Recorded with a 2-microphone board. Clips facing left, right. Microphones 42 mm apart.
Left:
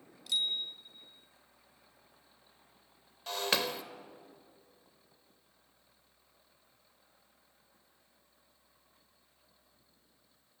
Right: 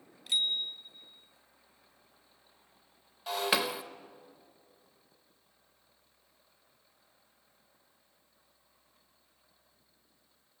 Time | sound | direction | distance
0.3 | a bicycle bell | 30° right (ahead or behind) | 2.5 m
3.3 | breaking glass | 10° right (ahead or behind) | 1.0 m